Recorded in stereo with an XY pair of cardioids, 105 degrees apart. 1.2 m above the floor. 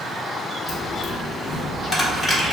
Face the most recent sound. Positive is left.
turn(degrees=10)